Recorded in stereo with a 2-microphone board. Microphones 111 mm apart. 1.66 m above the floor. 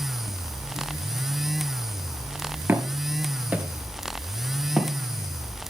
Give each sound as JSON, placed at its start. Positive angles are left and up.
{"t": 2.7, "sound": "footsteps", "side_deg": -20, "distance_m": 1.7}